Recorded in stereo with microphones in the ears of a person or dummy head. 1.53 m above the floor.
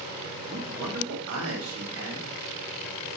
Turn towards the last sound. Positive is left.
turn(degrees=-75)  # may be behind; listen again after turning